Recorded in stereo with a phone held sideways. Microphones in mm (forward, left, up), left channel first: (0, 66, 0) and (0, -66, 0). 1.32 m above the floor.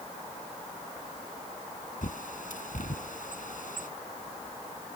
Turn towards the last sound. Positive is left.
turn(degrees=75)  # may be behind; listen again after turning